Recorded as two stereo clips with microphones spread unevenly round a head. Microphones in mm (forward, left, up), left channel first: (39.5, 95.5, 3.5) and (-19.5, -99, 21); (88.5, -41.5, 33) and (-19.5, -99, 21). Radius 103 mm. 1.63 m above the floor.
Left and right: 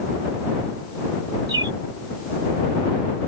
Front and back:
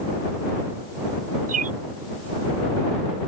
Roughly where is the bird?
Behind.